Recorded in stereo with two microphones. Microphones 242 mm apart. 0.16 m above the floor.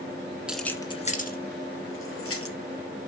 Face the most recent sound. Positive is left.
turn(degrees=65)  # may be behind; listen again after turning